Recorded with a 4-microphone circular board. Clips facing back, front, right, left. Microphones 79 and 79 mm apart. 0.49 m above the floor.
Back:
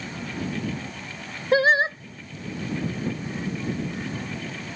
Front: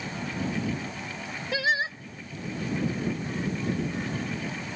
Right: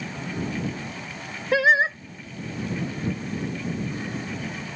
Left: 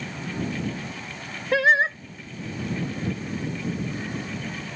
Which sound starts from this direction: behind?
Singing, at 1.5 s.